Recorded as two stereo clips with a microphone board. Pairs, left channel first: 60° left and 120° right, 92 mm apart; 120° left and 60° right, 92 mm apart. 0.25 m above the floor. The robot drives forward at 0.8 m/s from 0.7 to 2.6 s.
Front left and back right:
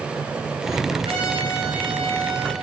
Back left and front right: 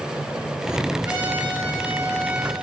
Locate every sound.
1.1 s a trumpet: 130° right, 4.5 m; by 2.5 s 140° right, 5.5 m